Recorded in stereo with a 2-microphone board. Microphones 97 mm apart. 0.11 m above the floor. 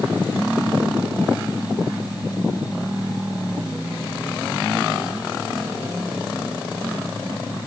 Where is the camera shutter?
No camera shutter in this recording.